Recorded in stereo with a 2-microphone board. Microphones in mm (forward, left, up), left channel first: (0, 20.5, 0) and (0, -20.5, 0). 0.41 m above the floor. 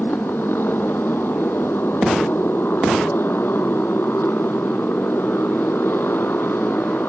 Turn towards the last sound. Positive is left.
turn(degrees=65)  # may be behind; listen again after turning